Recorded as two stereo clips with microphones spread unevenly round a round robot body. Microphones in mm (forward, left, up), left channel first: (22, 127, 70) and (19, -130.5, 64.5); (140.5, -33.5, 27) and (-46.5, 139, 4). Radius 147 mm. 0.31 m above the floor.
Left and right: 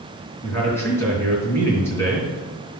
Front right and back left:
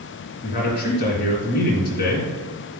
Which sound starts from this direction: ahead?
A man speaking, at 0.4 s.